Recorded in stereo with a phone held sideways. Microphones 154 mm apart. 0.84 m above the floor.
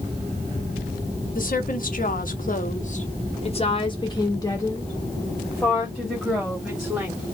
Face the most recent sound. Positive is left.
turn(degrees=-5)  # may be behind; listen again after turning